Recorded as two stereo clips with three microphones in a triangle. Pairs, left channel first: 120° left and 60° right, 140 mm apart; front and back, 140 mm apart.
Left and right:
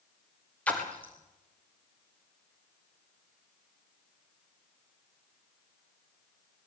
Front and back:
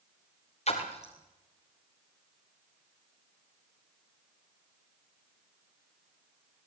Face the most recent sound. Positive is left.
turn(degrees=40)